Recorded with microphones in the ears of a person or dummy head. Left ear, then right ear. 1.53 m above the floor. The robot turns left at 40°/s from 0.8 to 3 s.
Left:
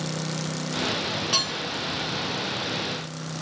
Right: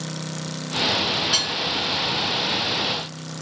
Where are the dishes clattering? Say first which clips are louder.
Left 1 dB; 10° left (ahead or behind), 1.6 m; by 1.5 s 15° left (ahead or behind), 1.6 m.